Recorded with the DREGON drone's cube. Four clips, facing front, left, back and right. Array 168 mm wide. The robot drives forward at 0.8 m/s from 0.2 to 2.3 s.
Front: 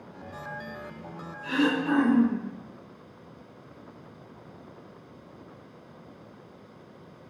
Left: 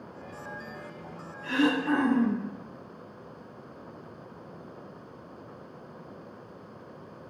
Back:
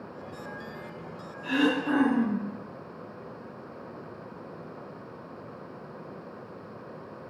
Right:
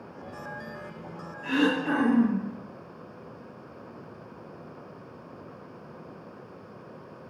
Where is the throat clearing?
85° right, 3.5 m; by 2.5 s 95° right, 3.5 m.